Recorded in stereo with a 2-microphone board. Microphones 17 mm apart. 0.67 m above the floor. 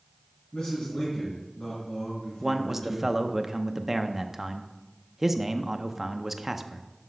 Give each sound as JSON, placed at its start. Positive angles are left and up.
{"t": 0.5, "sound": "a man speaking", "side_deg": 75, "distance_m": 4.5}
{"t": 2.4, "sound": "a man speaking", "side_deg": -20, "distance_m": 0.6}